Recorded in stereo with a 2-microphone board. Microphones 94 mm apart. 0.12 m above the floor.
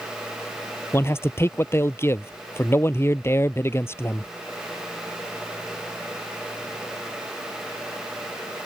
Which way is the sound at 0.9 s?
25° left (ahead or behind).